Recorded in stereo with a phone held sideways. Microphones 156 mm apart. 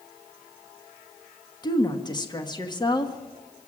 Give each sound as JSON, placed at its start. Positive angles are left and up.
{"t": 1.6, "sound": "a woman speaking", "side_deg": 30, "distance_m": 1.3}